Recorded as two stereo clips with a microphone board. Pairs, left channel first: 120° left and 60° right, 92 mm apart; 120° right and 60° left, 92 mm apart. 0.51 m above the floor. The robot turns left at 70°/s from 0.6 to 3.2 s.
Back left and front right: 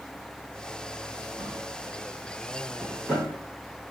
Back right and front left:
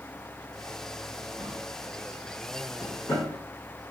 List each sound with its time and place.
1.4 s a drawer: 20° right, 1.8 m; by 3.3 s 150° right, 1.8 m